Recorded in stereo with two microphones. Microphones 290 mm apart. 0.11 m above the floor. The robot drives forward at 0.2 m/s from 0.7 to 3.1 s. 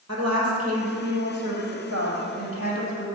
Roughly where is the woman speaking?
Right.